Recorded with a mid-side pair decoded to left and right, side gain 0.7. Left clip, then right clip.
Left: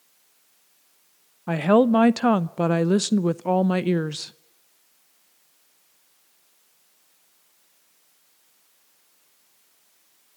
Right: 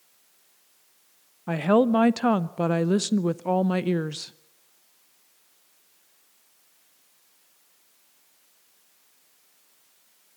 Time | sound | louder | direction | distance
1.5 | a woman speaking | left 3 dB | 15° left | 0.5 m